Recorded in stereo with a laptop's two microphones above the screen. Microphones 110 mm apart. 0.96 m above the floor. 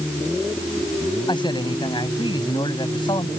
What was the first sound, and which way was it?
A man speaking, 40° left (ahead or behind).